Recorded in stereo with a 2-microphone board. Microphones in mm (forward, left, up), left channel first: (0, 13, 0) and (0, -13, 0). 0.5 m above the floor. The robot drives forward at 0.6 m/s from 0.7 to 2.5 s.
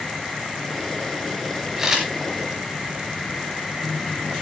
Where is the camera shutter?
15° right (ahead or behind), 6 m.